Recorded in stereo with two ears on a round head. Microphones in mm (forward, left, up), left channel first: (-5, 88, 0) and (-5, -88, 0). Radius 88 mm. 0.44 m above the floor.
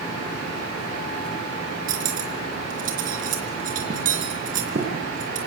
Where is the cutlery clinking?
45° right (ahead or behind), 4.5 m.